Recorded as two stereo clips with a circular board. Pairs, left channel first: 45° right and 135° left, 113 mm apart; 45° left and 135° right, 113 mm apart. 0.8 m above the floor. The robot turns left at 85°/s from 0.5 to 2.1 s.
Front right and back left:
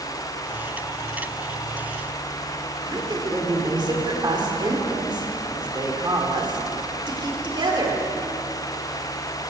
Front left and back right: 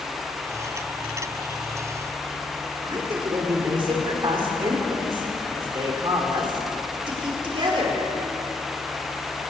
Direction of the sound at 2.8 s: Straight behind.